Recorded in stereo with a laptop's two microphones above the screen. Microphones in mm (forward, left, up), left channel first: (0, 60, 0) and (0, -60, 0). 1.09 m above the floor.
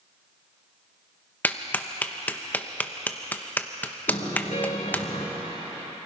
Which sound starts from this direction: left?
A car horn, at 4.1 s.